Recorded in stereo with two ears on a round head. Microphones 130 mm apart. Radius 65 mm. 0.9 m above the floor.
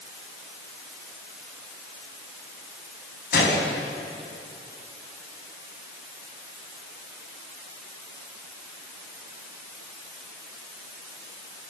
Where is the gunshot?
70° left (ahead or behind), 6 m.